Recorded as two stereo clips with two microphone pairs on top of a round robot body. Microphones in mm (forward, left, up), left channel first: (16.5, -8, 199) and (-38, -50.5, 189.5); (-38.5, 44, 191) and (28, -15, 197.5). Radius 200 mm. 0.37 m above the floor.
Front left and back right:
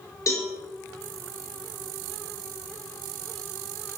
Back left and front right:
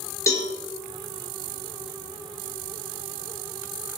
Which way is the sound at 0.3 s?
85° left.